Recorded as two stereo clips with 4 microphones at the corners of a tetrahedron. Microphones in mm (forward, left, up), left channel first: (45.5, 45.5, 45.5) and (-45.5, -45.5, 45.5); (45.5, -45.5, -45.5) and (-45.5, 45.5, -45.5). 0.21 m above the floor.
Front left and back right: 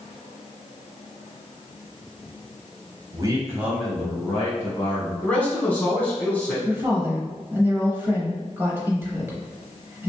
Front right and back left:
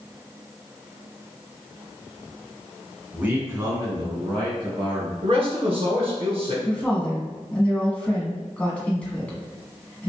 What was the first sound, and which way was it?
A man speaking, 155° right.